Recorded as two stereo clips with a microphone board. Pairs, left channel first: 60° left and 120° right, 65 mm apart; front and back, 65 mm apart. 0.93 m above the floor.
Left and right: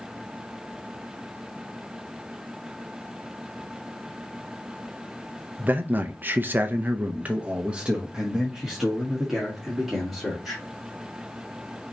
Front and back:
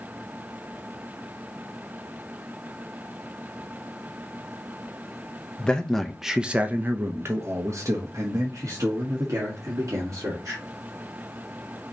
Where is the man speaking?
70° right, 0.8 m; by 10.6 s 155° left, 2.5 m.